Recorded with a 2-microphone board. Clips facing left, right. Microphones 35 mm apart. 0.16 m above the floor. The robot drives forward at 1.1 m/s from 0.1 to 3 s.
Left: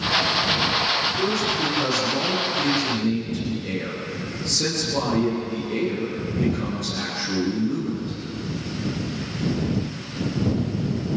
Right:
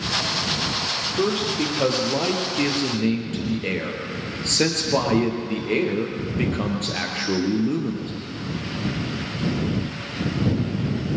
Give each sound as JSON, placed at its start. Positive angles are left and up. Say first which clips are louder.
{"t": 1.2, "sound": "a man speaking", "louder": "even", "side_deg": -45, "distance_m": 4.5}